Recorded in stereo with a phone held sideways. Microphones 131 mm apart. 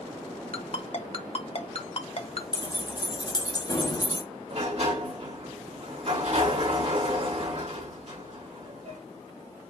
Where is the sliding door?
55° right (ahead or behind), 2 m.